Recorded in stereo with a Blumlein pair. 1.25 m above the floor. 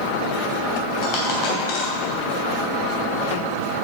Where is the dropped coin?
40° left, 3 m.